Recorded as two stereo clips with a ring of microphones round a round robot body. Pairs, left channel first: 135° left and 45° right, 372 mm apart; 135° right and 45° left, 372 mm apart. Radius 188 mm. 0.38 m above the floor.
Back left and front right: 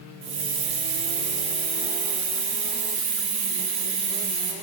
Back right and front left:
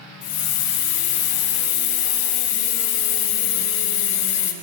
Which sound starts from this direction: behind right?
A hiss, at 0.2 s.